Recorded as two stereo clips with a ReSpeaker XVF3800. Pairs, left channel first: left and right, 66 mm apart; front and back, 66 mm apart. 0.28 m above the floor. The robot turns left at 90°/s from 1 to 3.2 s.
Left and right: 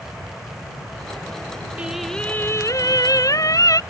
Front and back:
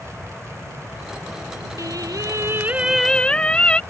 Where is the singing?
160° right; by 3.8 s 70° left.